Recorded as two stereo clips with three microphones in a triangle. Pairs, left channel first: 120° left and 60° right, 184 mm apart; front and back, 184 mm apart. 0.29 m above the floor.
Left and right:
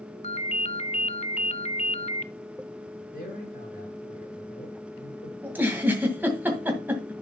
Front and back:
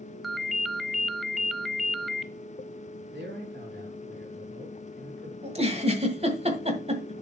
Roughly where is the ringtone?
Left.